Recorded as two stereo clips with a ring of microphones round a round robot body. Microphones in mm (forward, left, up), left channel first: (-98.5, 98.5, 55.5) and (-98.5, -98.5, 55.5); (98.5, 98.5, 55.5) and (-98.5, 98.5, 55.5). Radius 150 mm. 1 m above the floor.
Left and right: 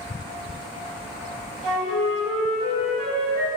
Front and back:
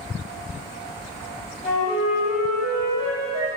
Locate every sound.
1.6 s a flute: 90° right, 1.1 m